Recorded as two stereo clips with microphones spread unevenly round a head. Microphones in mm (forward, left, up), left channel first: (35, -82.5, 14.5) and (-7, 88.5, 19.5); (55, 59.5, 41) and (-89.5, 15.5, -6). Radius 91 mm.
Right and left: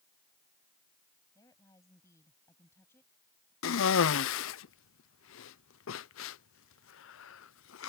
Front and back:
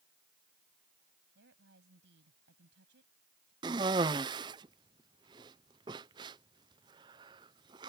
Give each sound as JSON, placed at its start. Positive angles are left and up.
{"t": 1.4, "sound": "a woman speaking", "azimuth_deg": -150}
{"t": 3.6, "sound": "a cough", "azimuth_deg": -95}